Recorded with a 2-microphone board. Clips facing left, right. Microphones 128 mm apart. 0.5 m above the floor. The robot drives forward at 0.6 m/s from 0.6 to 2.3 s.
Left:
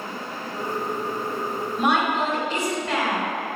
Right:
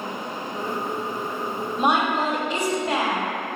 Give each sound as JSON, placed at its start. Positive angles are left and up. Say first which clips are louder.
{"t": 1.8, "sound": "a woman speaking", "louder": "right 1 dB", "side_deg": -20, "distance_m": 1.5}